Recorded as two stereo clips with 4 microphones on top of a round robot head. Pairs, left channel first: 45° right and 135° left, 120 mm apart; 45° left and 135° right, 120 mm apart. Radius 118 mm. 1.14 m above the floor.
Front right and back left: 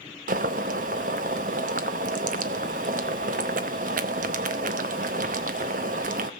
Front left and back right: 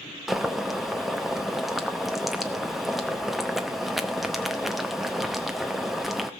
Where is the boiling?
140° left, 0.6 m.